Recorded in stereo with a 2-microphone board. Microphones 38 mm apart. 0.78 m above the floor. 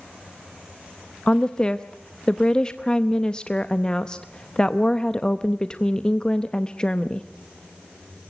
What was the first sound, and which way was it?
A woman speaking, 25° left (ahead or behind).